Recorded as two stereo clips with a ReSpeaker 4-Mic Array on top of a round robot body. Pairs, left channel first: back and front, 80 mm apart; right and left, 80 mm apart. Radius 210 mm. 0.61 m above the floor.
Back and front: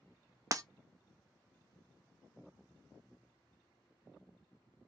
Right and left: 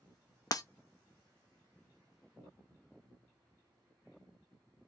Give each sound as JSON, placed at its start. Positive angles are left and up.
{"t": 0.5, "sound": "breaking glass", "azimuth_deg": -50, "distance_m": 0.5}